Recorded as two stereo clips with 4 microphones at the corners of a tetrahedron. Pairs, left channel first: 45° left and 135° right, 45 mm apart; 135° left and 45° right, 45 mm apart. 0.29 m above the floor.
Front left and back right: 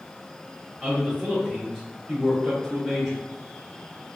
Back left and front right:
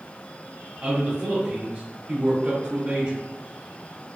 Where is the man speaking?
50° right, 1.5 m.